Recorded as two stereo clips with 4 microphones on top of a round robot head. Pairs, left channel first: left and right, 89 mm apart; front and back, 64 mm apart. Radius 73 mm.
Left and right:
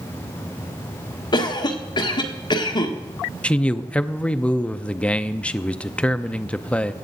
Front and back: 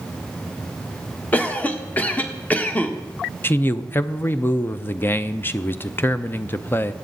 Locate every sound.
1.3 s a cough: 65° left, 1.4 m
3.4 s a man speaking: 25° left, 0.6 m